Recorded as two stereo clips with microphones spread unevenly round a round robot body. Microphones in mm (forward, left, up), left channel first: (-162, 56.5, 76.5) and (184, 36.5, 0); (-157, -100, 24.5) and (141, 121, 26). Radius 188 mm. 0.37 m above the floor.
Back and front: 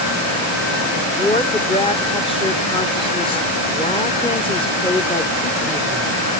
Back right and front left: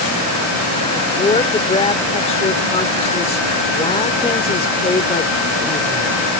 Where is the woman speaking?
100° right.